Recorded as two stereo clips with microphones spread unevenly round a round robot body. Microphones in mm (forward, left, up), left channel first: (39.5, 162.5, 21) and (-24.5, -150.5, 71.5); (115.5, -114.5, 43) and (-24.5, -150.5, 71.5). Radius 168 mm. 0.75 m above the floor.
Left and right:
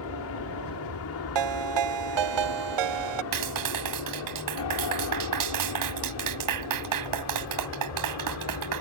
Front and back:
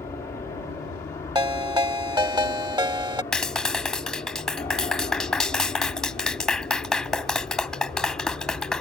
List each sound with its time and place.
0.0 s an aircraft: 75° left; by 8.8 s 85° left
1.4 s a ringtone: 105° right
3.3 s a clap: 70° right